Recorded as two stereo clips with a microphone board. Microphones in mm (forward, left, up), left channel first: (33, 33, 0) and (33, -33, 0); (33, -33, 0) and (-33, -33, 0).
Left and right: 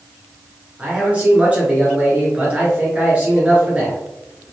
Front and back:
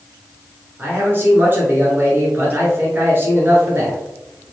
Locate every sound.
0.8 s a man speaking: 150° right, 1.4 m